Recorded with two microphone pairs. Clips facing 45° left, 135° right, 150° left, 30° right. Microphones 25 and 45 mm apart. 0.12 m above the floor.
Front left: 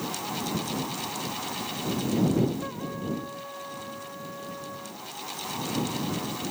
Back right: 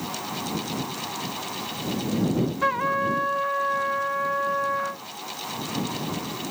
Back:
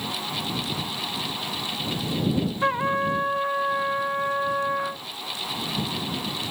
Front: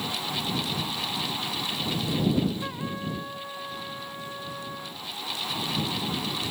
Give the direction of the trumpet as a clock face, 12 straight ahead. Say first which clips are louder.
Back right 11 dB, back 10 dB; 5 o'clock.